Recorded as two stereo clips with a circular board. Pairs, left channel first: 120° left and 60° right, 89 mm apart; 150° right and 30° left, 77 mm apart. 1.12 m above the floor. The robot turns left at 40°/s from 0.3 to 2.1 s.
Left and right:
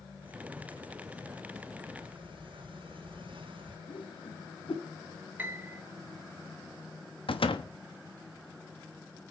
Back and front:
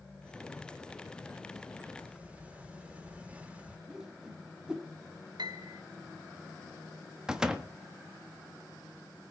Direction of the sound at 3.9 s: 110° left.